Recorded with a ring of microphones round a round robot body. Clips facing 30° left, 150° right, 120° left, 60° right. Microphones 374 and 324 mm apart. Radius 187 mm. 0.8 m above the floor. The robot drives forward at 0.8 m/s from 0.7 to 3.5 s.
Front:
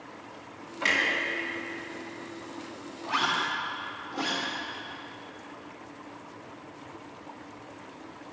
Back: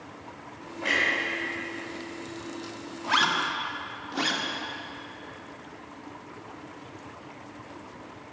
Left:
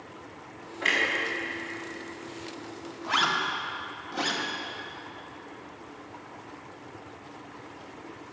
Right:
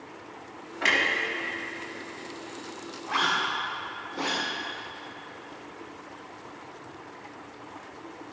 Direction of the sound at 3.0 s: 165° left.